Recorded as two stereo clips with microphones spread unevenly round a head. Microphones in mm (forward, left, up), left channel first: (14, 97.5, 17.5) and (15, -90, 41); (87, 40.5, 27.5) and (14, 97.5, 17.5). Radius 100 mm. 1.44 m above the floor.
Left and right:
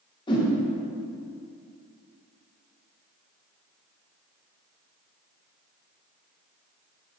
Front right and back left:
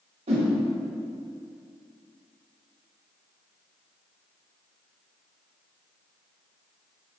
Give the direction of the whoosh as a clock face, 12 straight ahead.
7 o'clock.